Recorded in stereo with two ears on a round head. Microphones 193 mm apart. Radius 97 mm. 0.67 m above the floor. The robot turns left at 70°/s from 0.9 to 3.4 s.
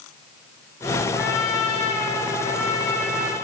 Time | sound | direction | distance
1.1 | a trumpet | 140° left | 0.7 m